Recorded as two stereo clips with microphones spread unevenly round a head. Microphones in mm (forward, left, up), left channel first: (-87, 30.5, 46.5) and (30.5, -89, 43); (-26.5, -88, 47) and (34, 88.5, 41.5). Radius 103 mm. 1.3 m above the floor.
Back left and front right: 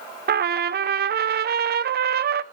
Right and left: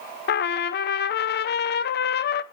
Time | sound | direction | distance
0.3 | a trumpet | 70° right | 0.6 m